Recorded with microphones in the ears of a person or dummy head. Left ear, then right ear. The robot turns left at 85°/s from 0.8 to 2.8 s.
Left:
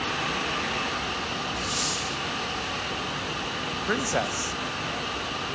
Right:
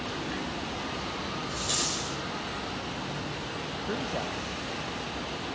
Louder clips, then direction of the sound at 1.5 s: Even; 130° right.